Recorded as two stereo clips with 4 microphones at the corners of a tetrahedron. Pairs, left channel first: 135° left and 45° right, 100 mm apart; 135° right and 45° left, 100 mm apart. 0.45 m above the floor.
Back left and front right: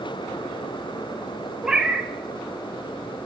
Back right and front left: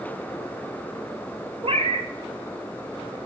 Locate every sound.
1.6 s a cat meowing: 35° left, 0.5 m